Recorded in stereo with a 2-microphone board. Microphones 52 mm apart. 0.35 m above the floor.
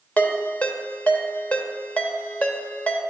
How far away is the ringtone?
About 1.0 m.